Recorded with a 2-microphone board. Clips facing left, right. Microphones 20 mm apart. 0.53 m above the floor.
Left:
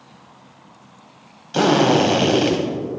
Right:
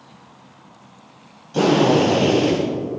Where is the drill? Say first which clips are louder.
Even; 55° left (ahead or behind), 2.5 m.